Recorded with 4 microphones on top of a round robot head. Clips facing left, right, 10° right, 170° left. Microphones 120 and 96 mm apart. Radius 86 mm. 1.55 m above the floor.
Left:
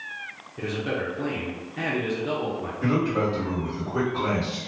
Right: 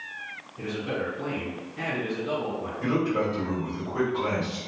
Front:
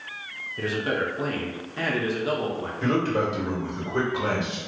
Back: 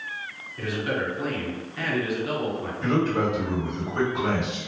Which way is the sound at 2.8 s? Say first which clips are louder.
Left 2 dB, even; straight ahead.